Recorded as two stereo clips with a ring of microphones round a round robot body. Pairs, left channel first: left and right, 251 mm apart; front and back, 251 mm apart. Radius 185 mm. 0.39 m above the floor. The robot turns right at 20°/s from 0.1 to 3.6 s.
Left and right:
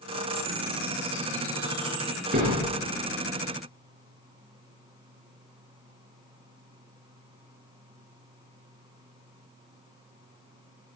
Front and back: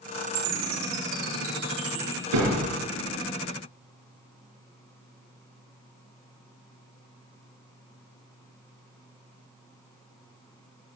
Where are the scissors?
No scissors in this recording.